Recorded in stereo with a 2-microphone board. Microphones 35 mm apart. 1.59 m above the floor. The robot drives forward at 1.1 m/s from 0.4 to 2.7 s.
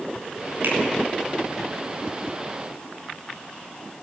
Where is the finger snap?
80° right, 6.5 m.